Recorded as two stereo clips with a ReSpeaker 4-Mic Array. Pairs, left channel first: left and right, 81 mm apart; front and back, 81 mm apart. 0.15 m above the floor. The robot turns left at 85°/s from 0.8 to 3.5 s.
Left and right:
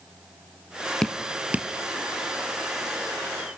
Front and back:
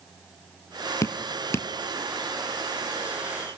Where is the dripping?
15° left, 0.6 m; by 1.7 s 45° right, 0.6 m.